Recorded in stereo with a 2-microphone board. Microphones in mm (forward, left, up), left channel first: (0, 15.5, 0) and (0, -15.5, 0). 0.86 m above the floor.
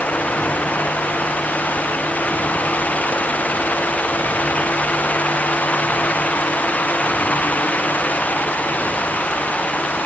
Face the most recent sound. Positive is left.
No sound to turn to.